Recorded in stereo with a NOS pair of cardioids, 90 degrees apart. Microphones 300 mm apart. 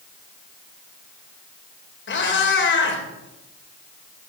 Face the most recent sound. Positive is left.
turn(degrees=40)